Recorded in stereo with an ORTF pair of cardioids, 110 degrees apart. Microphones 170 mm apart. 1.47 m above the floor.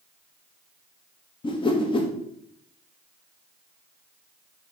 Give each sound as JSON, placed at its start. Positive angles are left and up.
{"t": 1.4, "sound": "a whoosh", "azimuth_deg": 30, "distance_m": 1.5}